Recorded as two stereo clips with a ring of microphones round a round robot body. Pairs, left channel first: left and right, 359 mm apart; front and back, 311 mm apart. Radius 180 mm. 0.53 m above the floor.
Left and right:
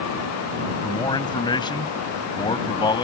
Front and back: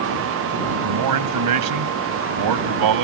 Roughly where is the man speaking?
Behind.